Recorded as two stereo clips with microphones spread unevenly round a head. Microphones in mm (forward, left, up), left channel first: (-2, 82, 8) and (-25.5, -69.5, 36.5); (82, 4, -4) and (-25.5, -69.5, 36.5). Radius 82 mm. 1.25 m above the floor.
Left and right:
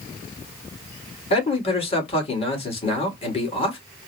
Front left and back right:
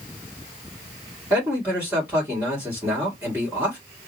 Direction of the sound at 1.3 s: 135° left.